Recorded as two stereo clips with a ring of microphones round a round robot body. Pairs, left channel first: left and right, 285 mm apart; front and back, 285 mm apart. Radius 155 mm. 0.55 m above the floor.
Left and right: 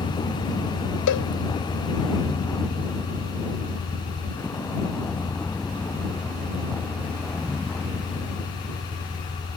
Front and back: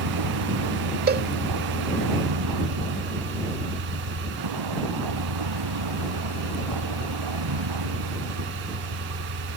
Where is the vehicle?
165° left; by 9.6 s straight behind.